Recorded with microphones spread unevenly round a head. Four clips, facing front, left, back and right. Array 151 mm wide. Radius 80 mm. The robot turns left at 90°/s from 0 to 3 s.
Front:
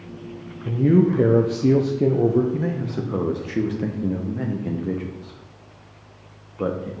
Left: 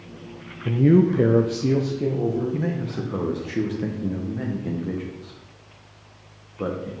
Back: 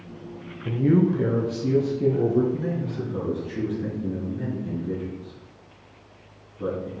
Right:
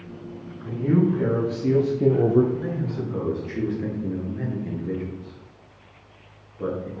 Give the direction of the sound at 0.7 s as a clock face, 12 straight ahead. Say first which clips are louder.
Left 4 dB, front 3 dB; 8 o'clock.